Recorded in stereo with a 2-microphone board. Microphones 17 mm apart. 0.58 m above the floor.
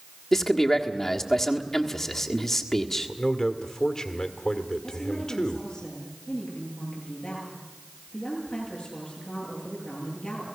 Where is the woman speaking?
85° left, 9 m.